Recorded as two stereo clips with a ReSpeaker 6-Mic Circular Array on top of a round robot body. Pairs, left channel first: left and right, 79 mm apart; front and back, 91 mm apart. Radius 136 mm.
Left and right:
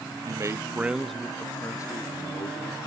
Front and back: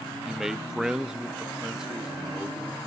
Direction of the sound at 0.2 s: 95° right.